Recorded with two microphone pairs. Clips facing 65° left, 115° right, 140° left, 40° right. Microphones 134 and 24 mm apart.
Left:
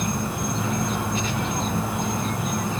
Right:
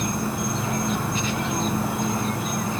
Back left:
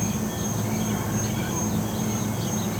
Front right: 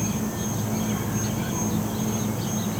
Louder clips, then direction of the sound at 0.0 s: Right 1 dB, even; 135° left.